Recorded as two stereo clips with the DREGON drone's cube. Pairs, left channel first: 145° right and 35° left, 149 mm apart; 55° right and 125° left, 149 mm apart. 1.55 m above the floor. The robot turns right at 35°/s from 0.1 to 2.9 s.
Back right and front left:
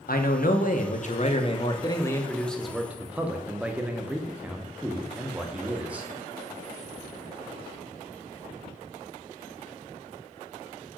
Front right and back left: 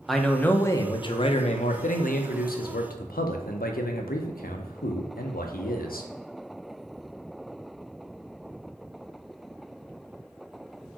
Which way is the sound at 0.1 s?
145° right.